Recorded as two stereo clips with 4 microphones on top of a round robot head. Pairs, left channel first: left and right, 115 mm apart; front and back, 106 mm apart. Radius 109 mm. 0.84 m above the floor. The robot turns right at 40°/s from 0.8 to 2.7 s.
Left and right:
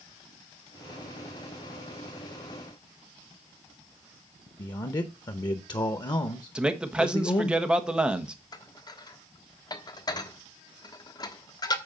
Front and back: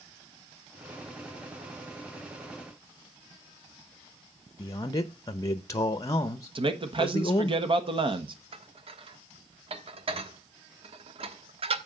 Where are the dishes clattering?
145° left, 1.1 m.